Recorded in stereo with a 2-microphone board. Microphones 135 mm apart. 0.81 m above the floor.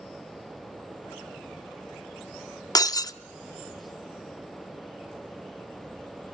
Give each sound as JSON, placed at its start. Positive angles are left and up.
{"t": 2.8, "sound": "breaking glass", "side_deg": 30, "distance_m": 0.6}